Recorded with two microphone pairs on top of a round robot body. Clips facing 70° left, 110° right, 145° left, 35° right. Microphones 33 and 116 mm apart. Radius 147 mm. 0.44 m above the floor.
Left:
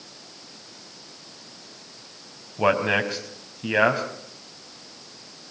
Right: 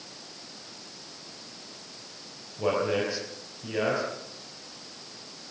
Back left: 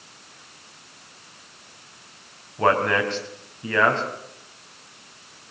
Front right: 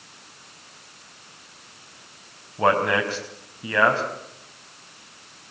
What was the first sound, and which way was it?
A man speaking, 50° left.